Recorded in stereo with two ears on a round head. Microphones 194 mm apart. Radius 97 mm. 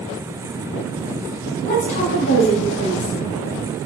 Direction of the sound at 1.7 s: 35° left (ahead or behind).